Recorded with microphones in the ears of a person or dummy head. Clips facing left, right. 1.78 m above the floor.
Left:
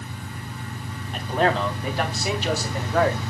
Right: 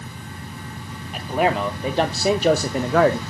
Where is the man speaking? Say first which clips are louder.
Right 1 dB; 5° right (ahead or behind), 1.1 m; by 3.2 s 70° right (ahead or behind), 0.8 m.